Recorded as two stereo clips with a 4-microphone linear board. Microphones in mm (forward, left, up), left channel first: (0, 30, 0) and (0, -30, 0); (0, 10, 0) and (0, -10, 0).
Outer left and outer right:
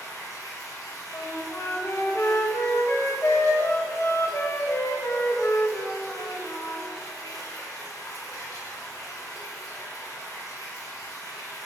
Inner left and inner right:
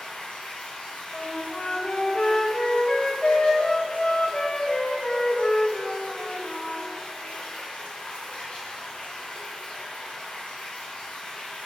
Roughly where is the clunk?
I don't hear a clunk.